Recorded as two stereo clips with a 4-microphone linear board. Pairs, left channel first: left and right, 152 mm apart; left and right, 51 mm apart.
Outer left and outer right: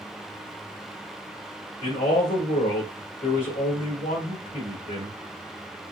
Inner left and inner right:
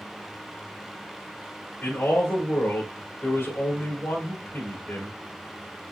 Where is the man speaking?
75° left (ahead or behind), 2.5 m.